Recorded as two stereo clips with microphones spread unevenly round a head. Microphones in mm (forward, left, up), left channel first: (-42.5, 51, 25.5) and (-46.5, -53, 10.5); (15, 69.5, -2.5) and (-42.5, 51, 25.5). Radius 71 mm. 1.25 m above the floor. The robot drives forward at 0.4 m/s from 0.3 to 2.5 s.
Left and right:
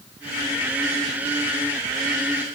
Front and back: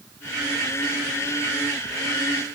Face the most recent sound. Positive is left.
No sound to turn to.